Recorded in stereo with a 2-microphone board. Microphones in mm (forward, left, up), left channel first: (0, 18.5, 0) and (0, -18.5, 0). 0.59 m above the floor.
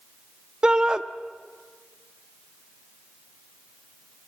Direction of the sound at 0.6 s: 20° right (ahead or behind).